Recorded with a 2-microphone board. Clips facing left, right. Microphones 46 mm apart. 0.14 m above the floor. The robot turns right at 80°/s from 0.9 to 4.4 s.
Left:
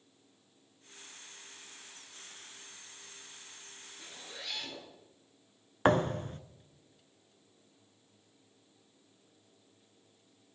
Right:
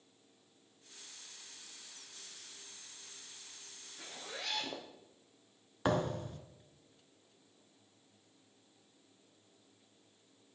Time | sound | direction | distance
4.0 | a zipper | 120° right | 3 m
5.8 | a thud | 45° left (ahead or behind) | 0.6 m